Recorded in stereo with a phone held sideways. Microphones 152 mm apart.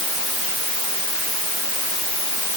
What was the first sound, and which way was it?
Only background noise.